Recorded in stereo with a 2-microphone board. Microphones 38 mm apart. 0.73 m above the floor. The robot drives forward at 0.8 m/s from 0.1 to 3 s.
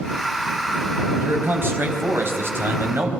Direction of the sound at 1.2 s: 70° right (ahead or behind).